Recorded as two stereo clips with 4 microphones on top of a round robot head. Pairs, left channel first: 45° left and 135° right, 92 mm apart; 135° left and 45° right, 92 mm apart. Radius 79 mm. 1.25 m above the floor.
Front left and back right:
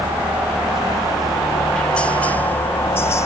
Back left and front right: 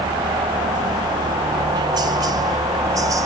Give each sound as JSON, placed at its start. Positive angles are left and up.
{"t": 0.0, "sound": "a helicopter", "azimuth_deg": -65}